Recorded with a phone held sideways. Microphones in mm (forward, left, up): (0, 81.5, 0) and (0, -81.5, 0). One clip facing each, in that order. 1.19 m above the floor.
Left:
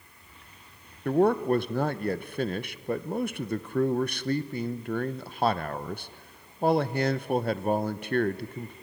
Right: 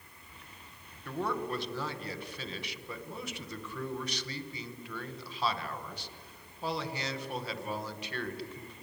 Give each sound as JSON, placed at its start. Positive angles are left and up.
{"t": 1.1, "sound": "a man speaking", "side_deg": 55, "distance_m": 0.9}